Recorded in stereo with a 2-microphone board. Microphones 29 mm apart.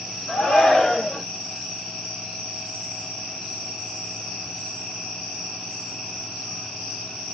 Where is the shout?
10° left (ahead or behind), 1.1 m.